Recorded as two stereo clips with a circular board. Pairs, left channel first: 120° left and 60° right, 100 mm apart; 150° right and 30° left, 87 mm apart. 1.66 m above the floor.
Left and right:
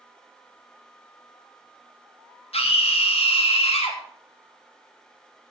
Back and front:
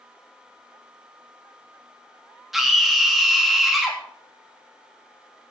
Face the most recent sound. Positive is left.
turn(degrees=115)